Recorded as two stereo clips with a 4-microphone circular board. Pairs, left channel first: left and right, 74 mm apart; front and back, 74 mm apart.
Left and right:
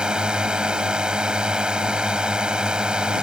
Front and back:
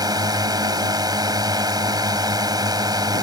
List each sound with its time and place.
0.0 s a drone: 170° right